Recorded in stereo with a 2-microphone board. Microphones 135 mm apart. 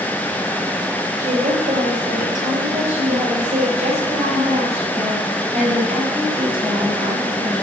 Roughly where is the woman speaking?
Right.